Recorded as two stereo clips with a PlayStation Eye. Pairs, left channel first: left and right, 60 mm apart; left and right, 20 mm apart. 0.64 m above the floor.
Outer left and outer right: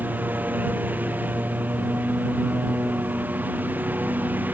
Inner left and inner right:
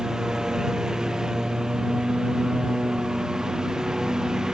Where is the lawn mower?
30° right (ahead or behind).